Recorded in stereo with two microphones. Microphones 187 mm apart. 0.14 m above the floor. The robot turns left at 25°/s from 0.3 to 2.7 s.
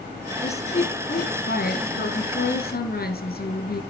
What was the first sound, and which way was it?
A woman speaking, 140° left.